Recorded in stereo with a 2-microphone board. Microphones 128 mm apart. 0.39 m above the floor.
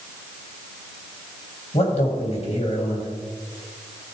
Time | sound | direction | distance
1.7 | a man speaking | 55° left (ahead or behind) | 3 m